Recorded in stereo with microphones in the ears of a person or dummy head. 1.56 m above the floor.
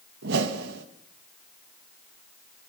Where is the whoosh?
65° right (ahead or behind), 2.5 m.